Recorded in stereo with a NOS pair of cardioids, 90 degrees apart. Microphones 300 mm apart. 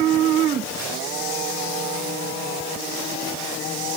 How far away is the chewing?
I don't hear chewing.